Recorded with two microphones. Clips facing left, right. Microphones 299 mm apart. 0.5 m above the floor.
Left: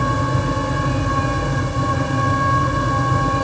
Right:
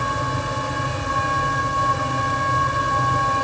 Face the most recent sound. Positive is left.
No sound to turn to.